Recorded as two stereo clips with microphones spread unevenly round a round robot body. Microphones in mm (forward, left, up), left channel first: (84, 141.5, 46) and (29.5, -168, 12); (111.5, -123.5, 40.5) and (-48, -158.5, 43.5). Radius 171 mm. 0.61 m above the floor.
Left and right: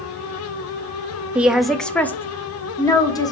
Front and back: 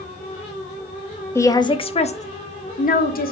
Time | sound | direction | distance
1.4 | a woman speaking | 35° right | 0.8 m